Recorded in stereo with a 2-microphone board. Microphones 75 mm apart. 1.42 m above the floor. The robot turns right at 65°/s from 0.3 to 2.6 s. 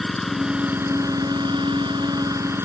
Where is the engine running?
Straight behind; by 2.6 s 35° right.